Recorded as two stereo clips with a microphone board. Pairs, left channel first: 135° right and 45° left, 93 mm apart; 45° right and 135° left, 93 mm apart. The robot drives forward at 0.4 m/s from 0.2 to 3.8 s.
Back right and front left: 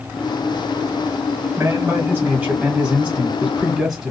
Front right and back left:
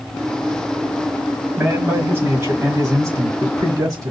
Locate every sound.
1.6 s a man speaking: 85° left, 1.8 m; by 4.1 s 125° left, 2.0 m